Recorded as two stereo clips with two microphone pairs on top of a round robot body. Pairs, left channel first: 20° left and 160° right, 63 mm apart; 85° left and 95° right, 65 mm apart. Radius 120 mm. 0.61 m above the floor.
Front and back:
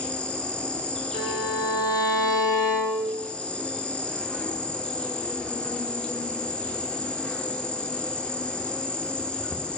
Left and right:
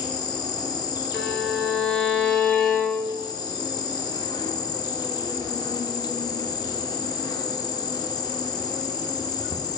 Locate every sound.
0.0 s an insect: 100° left, 1.0 m
1.1 s a violin: 5° left, 1.9 m